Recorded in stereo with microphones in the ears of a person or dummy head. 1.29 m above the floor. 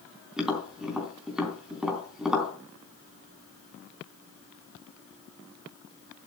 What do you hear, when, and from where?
0.4 s tapping: 5° right (ahead or behind), 3.5 m